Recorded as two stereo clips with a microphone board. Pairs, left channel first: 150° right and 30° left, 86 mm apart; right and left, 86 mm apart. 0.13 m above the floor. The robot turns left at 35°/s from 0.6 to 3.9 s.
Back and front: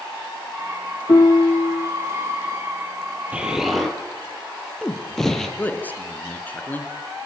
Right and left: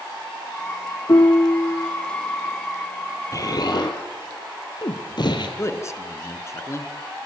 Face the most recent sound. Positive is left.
turn(degrees=-95)